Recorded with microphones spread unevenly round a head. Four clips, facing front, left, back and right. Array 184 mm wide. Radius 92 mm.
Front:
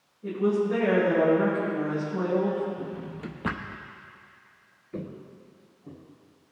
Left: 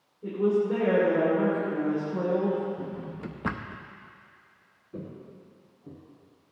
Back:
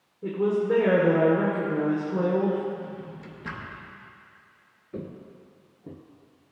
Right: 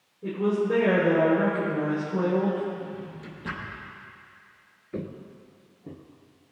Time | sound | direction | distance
0.2 | a woman speaking | 165° right | 3 m
2.8 | a drawer | 45° left | 0.7 m
4.9 | footsteps | 105° right | 1.2 m